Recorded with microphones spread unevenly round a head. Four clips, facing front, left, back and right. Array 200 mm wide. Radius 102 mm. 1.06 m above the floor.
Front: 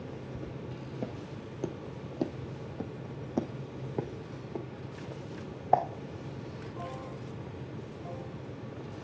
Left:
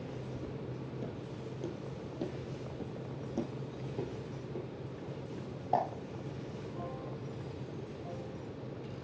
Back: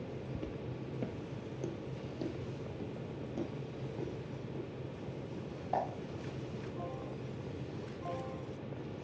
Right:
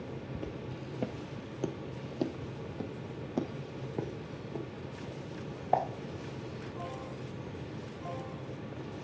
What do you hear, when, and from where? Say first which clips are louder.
0.3 s footsteps: right 1 dB, front 1 dB; 130° right, 1.2 m; by 5.8 s 15° right, 4 m